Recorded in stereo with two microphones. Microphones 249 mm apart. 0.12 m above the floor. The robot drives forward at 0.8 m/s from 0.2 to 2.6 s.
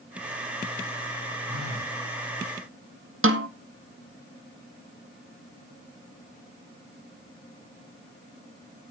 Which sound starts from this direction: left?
A phone buzzing, at 1.5 s.